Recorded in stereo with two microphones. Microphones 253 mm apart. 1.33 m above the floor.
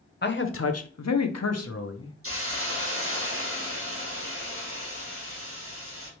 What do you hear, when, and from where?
0.2 s a man speaking: 40° left (ahead or behind), 0.7 m; by 2.1 s 50° left (ahead or behind), 0.9 m
2.2 s a hiss: 55° right (ahead or behind), 1.5 m